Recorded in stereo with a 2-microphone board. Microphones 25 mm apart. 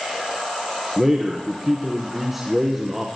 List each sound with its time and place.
1.0 s a man speaking: 15° right (ahead or behind), 2 m